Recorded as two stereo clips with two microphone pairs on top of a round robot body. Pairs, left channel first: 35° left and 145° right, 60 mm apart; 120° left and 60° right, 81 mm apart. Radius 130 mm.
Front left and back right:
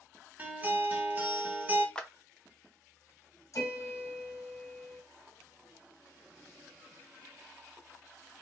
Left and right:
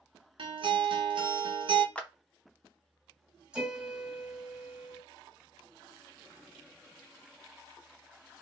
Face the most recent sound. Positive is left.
turn(degrees=20)